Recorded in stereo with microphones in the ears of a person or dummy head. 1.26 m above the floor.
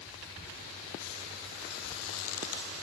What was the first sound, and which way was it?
Only background noise.